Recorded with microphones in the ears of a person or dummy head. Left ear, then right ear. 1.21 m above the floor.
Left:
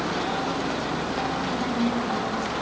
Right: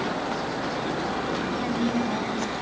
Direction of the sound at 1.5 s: 15° right (ahead or behind).